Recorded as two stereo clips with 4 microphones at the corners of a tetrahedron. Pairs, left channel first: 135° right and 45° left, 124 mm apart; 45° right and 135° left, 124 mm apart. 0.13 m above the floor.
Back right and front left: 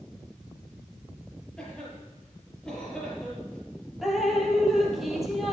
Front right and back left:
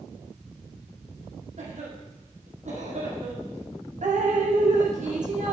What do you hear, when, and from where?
1.6 s a cough: 140° left, 5 m
4.0 s dripping: 135° left, 2.5 m